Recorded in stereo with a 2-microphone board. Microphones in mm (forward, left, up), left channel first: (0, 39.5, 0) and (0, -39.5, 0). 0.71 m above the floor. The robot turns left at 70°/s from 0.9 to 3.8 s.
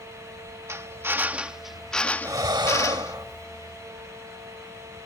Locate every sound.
0.7 s a drill: 120° right; by 3.1 s 85° left
2.2 s breathing: 50° right; by 3.5 s 135° right